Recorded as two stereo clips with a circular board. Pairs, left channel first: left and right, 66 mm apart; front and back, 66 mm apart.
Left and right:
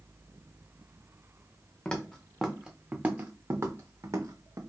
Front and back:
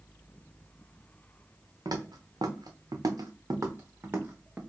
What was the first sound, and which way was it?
Footsteps, 165° left.